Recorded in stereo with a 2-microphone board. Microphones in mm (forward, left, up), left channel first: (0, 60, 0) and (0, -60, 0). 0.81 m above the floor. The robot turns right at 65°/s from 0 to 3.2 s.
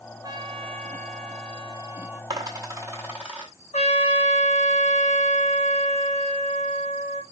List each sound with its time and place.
0.2 s a trumpet: 145° right, 0.7 m; by 2.2 s 15° right, 0.7 m
2.3 s a dropped coin: 40° right (ahead or behind), 1.0 m; by 3.5 s 10° right (ahead or behind), 1.0 m
3.7 s a trumpet: 70° left (ahead or behind), 1.6 m